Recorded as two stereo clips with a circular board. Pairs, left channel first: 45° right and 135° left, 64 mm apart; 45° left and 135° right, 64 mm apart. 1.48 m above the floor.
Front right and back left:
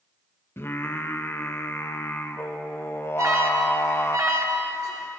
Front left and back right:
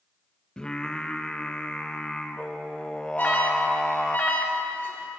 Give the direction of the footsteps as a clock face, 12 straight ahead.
No footsteps in this recording.